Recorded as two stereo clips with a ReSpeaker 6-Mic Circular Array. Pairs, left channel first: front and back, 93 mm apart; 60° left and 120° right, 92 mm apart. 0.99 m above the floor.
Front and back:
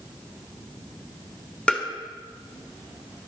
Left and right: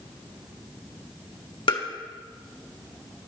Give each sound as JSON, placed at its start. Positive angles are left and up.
{"t": 1.7, "sound": "tapping", "azimuth_deg": 80, "distance_m": 1.8}